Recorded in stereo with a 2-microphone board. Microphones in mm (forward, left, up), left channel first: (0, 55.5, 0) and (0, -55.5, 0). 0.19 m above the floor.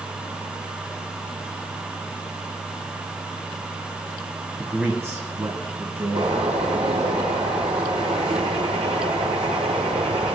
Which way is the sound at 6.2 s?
75° right (ahead or behind).